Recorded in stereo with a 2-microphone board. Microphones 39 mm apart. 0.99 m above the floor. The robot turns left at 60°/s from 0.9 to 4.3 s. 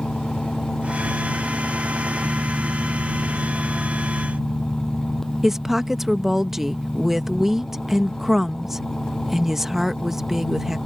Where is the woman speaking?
10° right (ahead or behind).